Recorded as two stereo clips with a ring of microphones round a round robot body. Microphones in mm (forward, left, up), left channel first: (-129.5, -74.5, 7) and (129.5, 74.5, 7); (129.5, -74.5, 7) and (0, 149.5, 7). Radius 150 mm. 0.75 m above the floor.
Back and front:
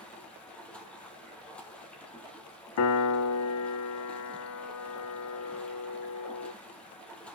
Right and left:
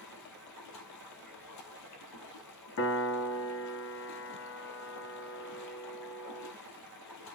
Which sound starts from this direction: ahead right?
Running water, at 0.0 s.